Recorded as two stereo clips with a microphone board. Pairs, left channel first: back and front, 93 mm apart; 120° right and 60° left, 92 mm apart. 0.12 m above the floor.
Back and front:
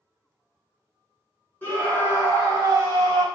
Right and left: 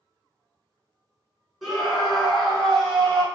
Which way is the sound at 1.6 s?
145° left.